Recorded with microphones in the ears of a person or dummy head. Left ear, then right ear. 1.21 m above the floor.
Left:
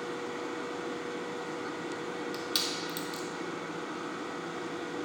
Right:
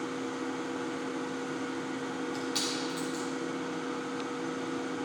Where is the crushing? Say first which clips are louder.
Left 1 dB; 30° left (ahead or behind), 1.3 m.